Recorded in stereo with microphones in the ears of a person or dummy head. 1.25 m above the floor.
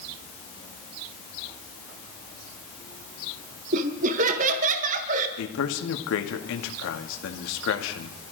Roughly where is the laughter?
Right.